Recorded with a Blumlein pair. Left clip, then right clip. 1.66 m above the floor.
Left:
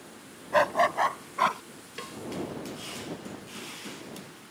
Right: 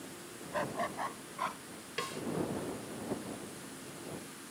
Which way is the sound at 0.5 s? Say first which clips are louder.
Left 13 dB; 35° left.